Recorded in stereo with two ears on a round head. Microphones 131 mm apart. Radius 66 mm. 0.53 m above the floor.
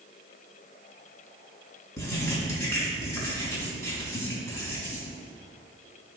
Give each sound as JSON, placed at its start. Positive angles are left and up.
{"t": 2.0, "sound": "writing", "side_deg": 20, "distance_m": 3.5}